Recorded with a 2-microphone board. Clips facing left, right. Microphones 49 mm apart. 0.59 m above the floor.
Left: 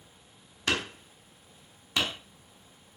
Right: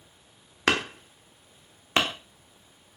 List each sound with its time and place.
0.7 s hammering: 55° right (ahead or behind), 1.1 m